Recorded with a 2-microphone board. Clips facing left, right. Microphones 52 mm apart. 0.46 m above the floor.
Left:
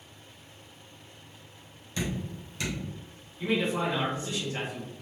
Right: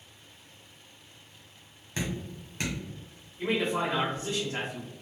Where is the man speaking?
35° right (ahead or behind), 1.5 m.